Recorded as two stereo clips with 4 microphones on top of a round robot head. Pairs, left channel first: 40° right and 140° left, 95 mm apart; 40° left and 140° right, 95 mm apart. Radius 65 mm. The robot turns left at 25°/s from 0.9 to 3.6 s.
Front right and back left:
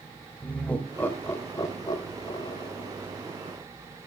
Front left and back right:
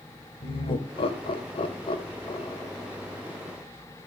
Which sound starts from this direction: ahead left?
Laughter, at 0.4 s.